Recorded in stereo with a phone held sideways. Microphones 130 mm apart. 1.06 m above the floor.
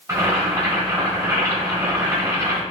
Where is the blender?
No blender in this recording.